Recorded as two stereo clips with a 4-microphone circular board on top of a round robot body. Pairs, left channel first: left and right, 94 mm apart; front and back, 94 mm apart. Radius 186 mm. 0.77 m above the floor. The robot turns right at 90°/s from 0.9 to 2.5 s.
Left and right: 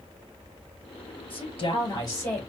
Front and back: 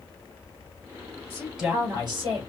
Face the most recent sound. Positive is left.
turn(degrees=175)